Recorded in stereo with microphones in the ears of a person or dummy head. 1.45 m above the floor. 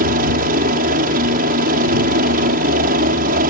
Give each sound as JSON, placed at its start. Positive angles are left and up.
{"t": 0.0, "sound": "a helicopter", "side_deg": -55}